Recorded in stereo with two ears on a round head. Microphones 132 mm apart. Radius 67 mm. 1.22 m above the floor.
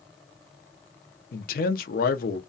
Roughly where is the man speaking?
Left.